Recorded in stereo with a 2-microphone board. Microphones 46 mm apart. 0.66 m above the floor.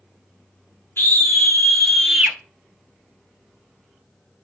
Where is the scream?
65° left (ahead or behind), 1.8 m; by 2.4 s 30° right (ahead or behind), 0.9 m.